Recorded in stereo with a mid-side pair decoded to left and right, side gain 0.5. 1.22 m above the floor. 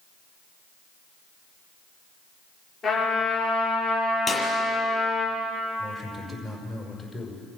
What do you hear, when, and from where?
2.8 s a trumpet: 50° left, 9 m
4.3 s a clap: 30° left, 7 m
5.8 s a man speaking: 40° left, 5.5 m